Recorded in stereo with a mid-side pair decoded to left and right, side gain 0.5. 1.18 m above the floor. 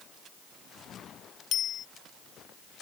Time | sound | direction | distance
1.5 | a bicycle bell | 60° left | ?